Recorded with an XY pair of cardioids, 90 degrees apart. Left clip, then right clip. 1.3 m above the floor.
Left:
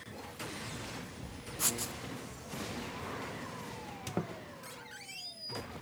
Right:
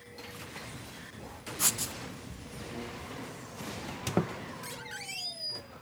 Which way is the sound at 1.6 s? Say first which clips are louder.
Right 4 dB; 30° right.